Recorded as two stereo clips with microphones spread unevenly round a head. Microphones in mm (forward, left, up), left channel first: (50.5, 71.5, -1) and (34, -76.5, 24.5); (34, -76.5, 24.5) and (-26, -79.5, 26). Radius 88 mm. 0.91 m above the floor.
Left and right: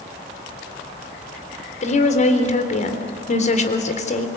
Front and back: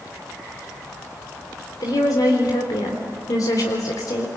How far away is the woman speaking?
About 3.5 m.